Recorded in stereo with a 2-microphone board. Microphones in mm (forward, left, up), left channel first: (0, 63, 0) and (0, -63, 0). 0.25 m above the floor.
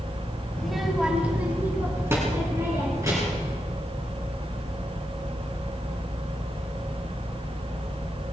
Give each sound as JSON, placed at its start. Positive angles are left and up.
{"t": 0.6, "sound": "a child speaking", "side_deg": 5, "distance_m": 1.2}